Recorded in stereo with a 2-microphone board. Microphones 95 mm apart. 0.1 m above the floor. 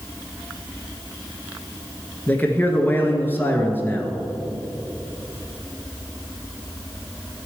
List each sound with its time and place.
2.3 s a man speaking: 20° left (ahead or behind), 1.1 m